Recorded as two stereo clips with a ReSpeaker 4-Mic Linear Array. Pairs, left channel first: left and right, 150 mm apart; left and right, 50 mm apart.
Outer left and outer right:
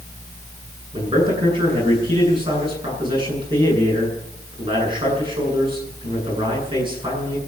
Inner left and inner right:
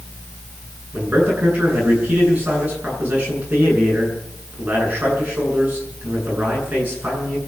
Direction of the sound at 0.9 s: 35° right (ahead or behind).